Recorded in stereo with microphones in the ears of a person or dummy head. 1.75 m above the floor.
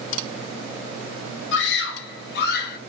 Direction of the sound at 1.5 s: 75° left (ahead or behind).